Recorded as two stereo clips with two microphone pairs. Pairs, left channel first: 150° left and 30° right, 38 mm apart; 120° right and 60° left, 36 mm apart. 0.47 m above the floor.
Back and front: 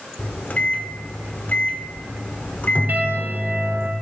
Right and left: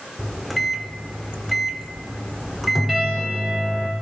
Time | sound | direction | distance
0.2 | a microwave | 155° left | 0.7 m
2.9 | a piano | 30° right | 2 m